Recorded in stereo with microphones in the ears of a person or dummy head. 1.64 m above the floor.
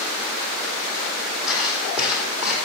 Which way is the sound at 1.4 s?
5° right (ahead or behind).